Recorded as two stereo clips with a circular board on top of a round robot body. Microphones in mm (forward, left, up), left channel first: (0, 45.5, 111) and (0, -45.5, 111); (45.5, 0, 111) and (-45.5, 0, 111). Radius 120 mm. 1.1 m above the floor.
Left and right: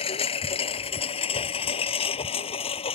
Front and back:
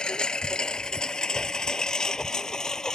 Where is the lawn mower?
80° left; by 2.9 s 85° left.